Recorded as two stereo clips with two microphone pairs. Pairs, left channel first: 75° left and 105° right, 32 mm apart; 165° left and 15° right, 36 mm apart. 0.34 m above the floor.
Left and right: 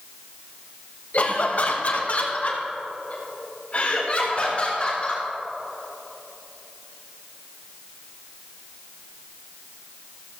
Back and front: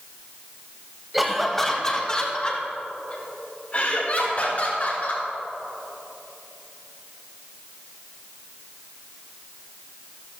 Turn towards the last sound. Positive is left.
turn(degrees=130)